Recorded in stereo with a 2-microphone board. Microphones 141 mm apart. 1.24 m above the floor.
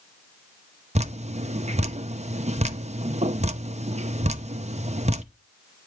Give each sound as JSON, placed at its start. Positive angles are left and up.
{"t": 0.9, "sound": "dripping", "side_deg": -50, "distance_m": 0.6}